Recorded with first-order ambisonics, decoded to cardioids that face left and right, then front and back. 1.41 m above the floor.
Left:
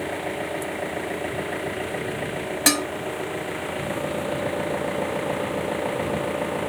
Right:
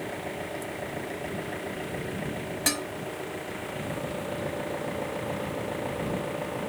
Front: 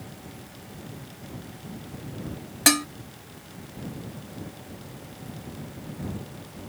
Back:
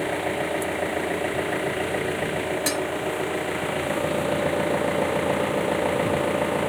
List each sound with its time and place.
0.0 s an engine running: 160° left
2.7 s dishes clattering: 40° left